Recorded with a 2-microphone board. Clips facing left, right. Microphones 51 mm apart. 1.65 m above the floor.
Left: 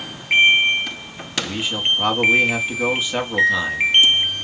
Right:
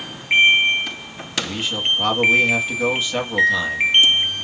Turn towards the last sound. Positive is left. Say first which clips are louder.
# left 1 dB
turn(degrees=10)  # may be behind; listen again after turning